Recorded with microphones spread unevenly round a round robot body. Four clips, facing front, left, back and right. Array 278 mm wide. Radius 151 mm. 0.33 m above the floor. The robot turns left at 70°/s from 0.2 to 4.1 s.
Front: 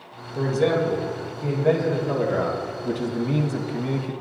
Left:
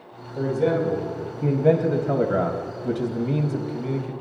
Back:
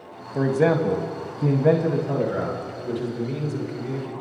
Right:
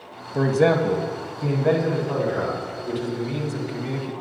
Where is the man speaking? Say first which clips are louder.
Right 3 dB, back 1 dB; 120° right, 2.5 m; by 4.1 s 20° right, 2.5 m.